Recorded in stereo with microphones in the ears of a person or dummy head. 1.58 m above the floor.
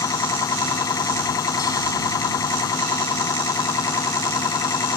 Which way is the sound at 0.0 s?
25° left (ahead or behind).